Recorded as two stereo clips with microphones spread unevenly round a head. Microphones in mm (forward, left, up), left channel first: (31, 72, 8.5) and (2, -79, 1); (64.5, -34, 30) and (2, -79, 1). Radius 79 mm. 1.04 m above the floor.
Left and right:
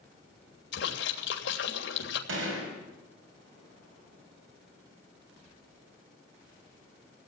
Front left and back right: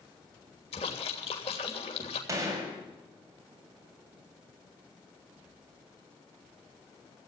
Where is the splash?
65° left, 3 m.